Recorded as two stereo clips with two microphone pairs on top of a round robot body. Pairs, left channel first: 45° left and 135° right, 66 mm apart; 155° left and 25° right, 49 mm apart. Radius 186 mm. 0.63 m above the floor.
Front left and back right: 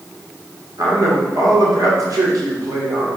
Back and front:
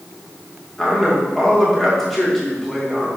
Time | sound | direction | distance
0.8 | a man speaking | 115° right | 2.5 m